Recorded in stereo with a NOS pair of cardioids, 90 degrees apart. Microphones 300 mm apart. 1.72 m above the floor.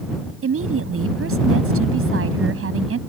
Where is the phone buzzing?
I don't hear a phone buzzing.